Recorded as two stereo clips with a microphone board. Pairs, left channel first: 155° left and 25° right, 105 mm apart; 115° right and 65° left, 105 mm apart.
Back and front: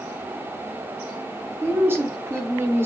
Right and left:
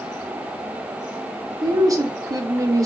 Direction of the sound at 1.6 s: 35° left.